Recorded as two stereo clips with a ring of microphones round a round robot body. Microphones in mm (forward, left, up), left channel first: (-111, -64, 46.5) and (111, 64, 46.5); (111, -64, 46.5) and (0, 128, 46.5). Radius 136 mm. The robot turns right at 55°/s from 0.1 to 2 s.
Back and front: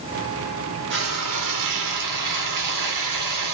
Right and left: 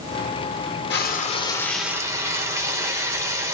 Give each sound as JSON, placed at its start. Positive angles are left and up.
{"t": 0.9, "sound": "frying", "azimuth_deg": -20, "distance_m": 1.2}